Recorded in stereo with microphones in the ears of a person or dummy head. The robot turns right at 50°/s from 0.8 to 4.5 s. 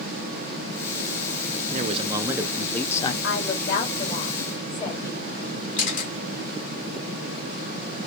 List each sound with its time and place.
1.7 s a man speaking: 45° right, 0.6 m; by 3.1 s 30° left, 0.6 m
3.2 s a woman speaking: 80° left, 2.5 m; by 5.2 s 20° left (ahead or behind), 2.5 m
5.8 s a camera shutter: 40° left (ahead or behind), 2 m